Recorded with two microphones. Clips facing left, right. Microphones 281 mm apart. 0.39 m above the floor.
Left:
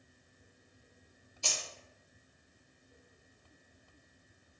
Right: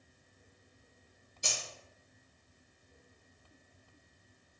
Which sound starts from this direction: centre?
Keys jangling, at 1.4 s.